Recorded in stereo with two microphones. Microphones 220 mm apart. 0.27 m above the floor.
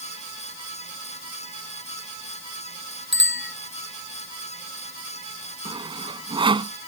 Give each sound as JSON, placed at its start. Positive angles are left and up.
{"t": 3.1, "sound": "a bicycle bell", "side_deg": -60}
{"t": 5.7, "sound": "sawing", "side_deg": -25}